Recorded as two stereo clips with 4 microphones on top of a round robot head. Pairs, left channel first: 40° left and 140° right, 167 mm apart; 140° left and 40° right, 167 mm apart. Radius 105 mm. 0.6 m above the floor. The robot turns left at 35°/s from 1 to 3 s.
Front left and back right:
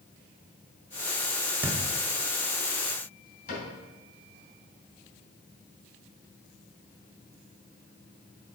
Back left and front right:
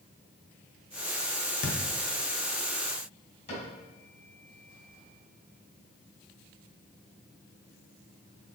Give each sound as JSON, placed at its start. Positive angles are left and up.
{"t": 1.6, "sound": "a thud", "azimuth_deg": 140, "distance_m": 0.8}
{"t": 3.5, "sound": "a cupboard door", "azimuth_deg": 85, "distance_m": 2.5}